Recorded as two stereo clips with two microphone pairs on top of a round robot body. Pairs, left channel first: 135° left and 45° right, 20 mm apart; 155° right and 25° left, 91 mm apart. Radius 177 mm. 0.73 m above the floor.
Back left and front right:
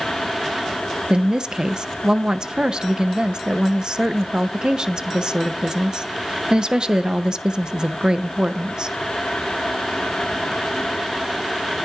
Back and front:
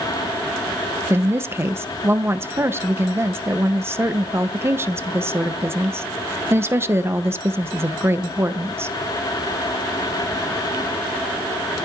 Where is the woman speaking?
35° right, 1.1 m.